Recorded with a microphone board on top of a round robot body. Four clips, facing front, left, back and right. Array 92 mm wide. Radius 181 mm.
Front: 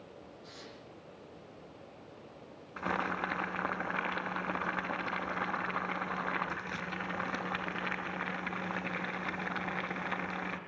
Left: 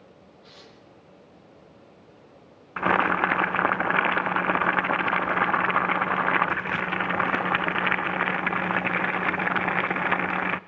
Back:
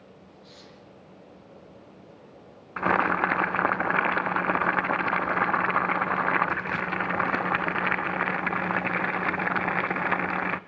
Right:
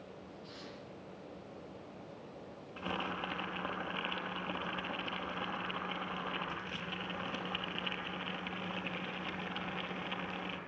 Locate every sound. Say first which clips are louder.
0.4 s tearing paper: left 1 dB, back 1 dB; 65° left, 9 m
2.8 s boiling: left 17 dB, back 11 dB; 125° left, 0.7 m